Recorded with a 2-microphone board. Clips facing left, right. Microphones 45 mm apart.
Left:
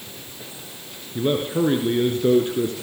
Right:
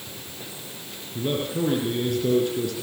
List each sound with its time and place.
1.1 s a man speaking: 35° left (ahead or behind), 3.5 m